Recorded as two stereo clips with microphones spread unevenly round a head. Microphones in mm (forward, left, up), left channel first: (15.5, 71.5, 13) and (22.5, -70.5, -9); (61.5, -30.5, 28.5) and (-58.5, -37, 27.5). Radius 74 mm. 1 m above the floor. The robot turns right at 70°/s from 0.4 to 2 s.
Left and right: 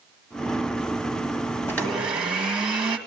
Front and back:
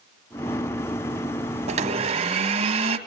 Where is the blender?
170° left, 1.5 m; by 3.0 s 165° right, 1.5 m.